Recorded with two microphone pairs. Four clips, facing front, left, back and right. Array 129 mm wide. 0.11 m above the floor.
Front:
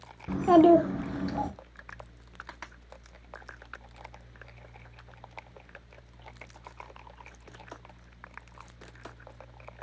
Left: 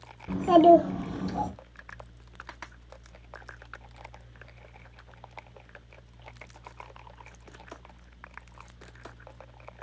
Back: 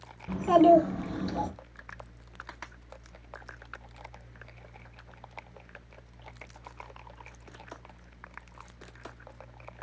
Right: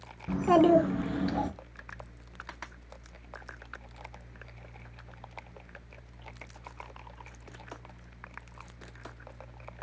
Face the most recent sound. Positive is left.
turn(degrees=-90)